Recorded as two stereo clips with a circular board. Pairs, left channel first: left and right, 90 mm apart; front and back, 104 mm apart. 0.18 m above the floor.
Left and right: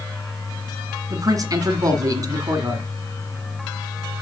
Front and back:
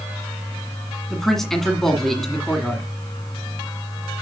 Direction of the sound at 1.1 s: 85° right.